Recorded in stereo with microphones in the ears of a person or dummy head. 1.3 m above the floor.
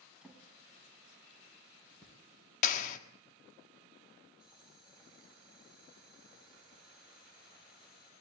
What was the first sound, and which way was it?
A drawer, centre (ahead or behind).